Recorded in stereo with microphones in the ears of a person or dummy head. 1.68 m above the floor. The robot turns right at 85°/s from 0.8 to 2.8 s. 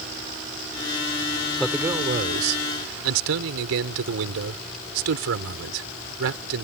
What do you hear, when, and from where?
1.6 s a man speaking: 175° left; by 6.7 s 85° right